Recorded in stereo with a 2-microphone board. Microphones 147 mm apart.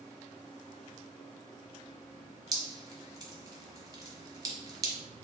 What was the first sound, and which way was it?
Dripping, 25° right (ahead or behind).